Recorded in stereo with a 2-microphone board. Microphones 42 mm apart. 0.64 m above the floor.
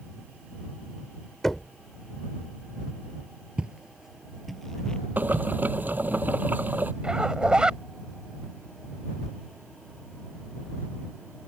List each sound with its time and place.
1.4 s knocking: 5° left (ahead or behind)
3.6 s footsteps: 25° right (ahead or behind); by 5.5 s 20° left (ahead or behind)
5.2 s boiling: 45° right (ahead or behind)
7.0 s a zipper: 20° right (ahead or behind)